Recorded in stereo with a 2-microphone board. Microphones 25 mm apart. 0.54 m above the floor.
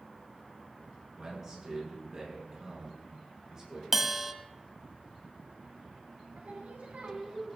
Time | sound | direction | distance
1.2 | a man speaking | 15° right (ahead or behind) | 6 m
3.9 | a bell | 10° right (ahead or behind) | 0.8 m
6.3 | singing | 65° right (ahead or behind) | 2.5 m